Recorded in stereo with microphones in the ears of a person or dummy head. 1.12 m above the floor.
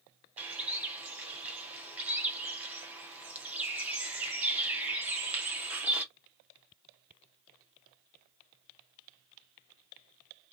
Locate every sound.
0.4 s a bird: 10° right (ahead or behind), 0.6 m